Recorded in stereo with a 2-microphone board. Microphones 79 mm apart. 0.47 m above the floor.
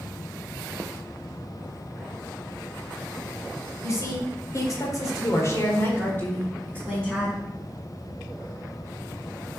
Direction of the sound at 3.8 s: 45° left (ahead or behind).